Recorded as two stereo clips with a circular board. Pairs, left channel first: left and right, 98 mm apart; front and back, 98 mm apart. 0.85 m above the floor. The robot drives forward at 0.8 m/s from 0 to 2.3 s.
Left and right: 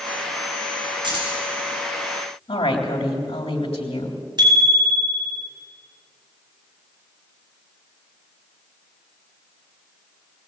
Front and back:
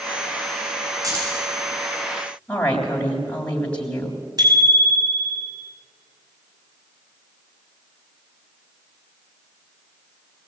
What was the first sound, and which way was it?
Keys jangling, 125° right.